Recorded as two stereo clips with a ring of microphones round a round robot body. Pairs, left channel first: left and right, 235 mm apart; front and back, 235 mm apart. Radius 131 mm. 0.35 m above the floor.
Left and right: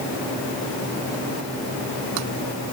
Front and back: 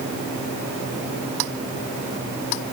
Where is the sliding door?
I don't hear a sliding door.